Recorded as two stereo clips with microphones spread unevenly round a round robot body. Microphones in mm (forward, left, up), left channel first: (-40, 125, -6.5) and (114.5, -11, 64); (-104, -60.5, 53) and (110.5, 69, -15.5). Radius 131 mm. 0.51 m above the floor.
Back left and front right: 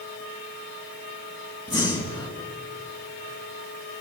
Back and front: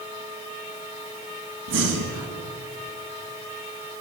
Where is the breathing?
70° left, 4.5 m.